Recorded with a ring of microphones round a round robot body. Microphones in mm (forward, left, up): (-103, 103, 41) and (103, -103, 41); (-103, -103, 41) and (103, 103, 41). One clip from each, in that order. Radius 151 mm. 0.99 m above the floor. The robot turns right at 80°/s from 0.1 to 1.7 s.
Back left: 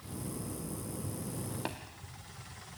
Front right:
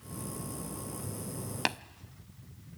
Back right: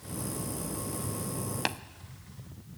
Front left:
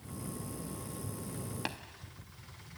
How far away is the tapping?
About 0.6 m.